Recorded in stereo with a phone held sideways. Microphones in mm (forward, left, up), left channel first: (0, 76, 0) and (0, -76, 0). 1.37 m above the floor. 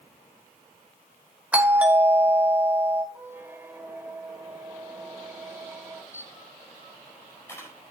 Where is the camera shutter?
15° left (ahead or behind), 4 m.